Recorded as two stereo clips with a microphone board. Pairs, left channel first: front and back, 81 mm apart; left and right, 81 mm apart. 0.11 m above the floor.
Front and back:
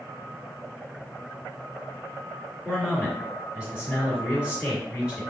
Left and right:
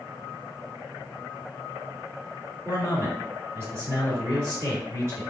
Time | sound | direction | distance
2.6 | a man speaking | 115° right | 2.0 m